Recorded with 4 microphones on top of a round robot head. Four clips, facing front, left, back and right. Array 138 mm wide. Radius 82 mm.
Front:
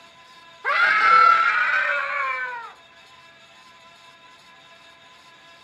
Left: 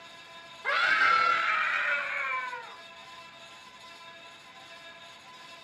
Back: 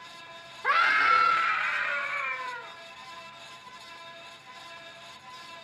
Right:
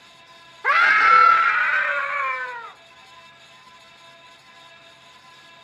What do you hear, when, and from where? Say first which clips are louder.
0.6 s a scream: right 9 dB, front 5 dB; 90° right, 1.7 m; by 2.8 s 65° right, 3 m